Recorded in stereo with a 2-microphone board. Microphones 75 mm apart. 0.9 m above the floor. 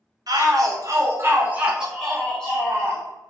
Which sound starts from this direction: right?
A shout, at 0.3 s.